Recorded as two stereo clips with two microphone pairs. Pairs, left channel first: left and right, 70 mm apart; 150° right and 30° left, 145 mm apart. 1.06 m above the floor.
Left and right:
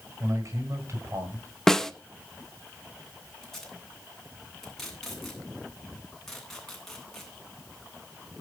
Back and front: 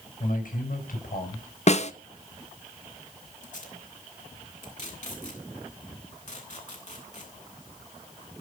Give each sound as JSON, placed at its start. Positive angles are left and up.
{"t": 0.2, "sound": "a man speaking", "azimuth_deg": -130, "distance_m": 7.0}
{"t": 1.7, "sound": "a snare drum", "azimuth_deg": 175, "distance_m": 1.3}
{"t": 3.4, "sound": "tape being pulled", "azimuth_deg": 180, "distance_m": 9.0}